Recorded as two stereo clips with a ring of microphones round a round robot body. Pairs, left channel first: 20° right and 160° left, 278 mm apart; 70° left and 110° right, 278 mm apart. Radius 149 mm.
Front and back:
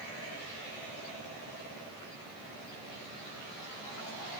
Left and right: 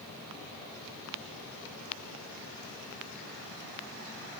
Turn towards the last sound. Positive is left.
No sound to turn to.